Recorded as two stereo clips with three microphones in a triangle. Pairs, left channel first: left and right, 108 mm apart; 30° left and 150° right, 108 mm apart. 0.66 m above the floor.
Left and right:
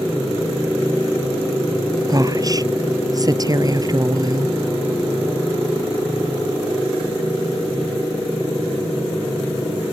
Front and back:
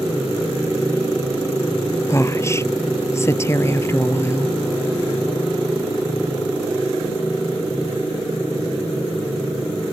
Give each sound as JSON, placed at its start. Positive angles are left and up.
{"t": 2.1, "sound": "a woman speaking", "azimuth_deg": -35}